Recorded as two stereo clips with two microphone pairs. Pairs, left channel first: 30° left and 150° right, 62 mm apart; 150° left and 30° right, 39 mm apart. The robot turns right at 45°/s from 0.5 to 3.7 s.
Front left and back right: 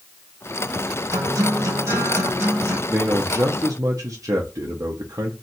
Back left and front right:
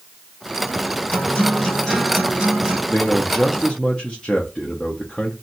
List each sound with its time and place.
1.1 s a guitar: 165° right, 1.9 m; by 2.8 s 90° right, 1.9 m
2.9 s a man speaking: 170° right, 0.6 m; by 5.3 s 135° right, 0.6 m